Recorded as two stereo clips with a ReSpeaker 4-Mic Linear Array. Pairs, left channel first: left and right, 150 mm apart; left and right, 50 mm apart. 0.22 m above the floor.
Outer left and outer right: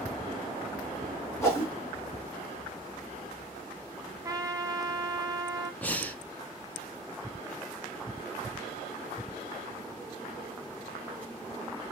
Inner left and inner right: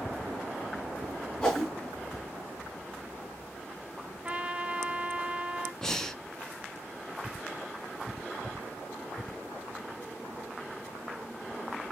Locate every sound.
1.4 s a whoosh: 20° left (ahead or behind), 3 m
4.2 s a trumpet: 25° right (ahead or behind), 0.5 m
5.8 s breathing: 10° left (ahead or behind), 0.6 m